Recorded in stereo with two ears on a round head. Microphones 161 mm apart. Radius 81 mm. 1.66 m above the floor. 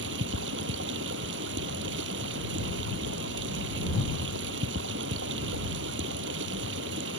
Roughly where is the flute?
I don't hear a flute.